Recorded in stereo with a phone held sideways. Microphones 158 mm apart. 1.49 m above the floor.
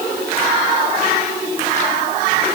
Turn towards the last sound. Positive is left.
No sound to turn to.